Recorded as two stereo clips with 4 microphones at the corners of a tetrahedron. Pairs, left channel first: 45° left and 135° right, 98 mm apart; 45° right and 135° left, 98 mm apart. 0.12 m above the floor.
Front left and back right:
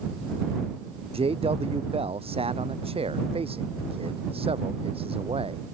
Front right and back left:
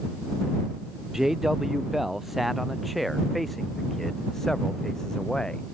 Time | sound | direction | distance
1.1 | a man speaking | 140° right | ?